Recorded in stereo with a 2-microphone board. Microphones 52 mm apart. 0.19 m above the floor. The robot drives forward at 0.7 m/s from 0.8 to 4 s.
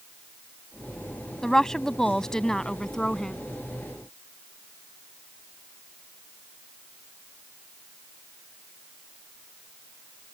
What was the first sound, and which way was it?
A woman speaking, 10° left (ahead or behind).